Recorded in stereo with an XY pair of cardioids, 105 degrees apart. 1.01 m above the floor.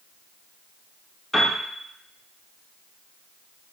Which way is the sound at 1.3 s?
10° left.